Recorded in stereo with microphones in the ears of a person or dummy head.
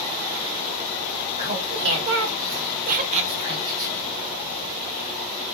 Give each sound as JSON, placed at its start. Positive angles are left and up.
{"t": 1.4, "sound": "laughter", "side_deg": -50, "distance_m": 1.0}